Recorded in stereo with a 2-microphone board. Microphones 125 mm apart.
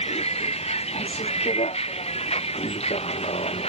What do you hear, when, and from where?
0.0 s a vehicle: 55° left (ahead or behind)